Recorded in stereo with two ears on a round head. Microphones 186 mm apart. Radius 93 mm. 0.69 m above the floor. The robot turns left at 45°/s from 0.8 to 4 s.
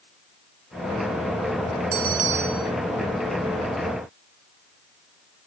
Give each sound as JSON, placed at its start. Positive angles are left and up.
{"t": 1.9, "sound": "a bell", "azimuth_deg": -125}